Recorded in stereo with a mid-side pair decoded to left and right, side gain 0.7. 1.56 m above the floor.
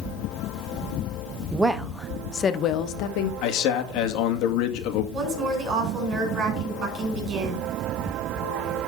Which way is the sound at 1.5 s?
15° right.